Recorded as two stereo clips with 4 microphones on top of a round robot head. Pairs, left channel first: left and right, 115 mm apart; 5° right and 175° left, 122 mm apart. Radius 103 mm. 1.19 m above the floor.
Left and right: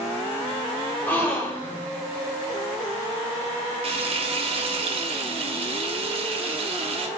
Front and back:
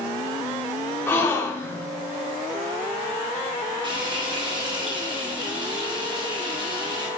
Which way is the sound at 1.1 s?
30° left.